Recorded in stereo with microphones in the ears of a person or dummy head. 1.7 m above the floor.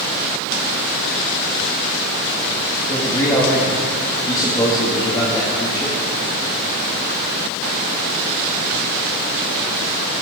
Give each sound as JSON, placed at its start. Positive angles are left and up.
{"t": 2.9, "sound": "a man speaking", "side_deg": 25, "distance_m": 2.5}